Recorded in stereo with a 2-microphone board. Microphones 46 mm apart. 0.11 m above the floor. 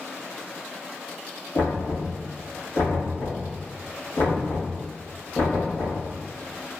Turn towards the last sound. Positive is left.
turn(degrees=65)  # may be behind; listen again after turning